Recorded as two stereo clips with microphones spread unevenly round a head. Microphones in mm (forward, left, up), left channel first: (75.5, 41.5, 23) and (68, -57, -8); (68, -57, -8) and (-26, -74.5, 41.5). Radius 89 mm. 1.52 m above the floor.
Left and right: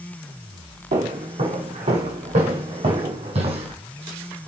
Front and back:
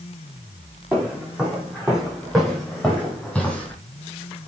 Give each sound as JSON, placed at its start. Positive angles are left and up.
{"t": 0.9, "sound": "footsteps", "azimuth_deg": -100, "distance_m": 5.5}